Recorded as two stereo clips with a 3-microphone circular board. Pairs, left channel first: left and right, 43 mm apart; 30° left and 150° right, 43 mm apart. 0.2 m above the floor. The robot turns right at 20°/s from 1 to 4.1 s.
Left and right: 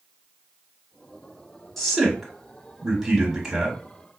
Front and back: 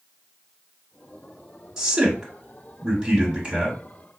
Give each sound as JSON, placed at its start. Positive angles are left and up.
{"t": 1.8, "sound": "a man speaking", "azimuth_deg": 165, "distance_m": 1.0}